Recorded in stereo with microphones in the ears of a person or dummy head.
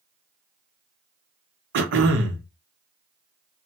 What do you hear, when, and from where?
1.7 s throat clearing: 65° right (ahead or behind), 0.7 m